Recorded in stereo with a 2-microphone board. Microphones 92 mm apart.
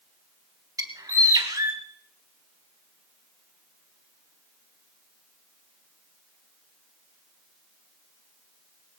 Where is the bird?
40° right (ahead or behind), 1.4 m.